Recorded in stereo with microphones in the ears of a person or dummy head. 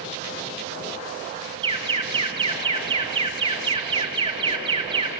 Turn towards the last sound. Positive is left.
turn(degrees=-25)  # may be behind; listen again after turning